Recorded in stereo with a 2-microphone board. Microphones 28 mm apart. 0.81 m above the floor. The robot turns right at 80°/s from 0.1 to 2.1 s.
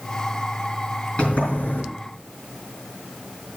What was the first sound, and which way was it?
A sliding door, 40° left.